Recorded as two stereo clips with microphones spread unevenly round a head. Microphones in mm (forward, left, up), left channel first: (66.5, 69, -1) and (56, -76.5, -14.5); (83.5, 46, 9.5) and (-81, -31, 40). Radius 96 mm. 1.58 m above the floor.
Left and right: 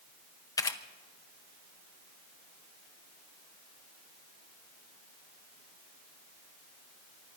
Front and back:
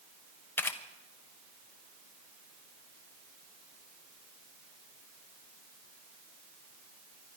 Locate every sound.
0.6 s a camera shutter: 110° left, 0.8 m